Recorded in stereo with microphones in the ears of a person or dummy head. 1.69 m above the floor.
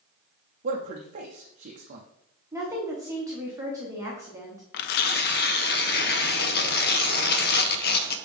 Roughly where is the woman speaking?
Right.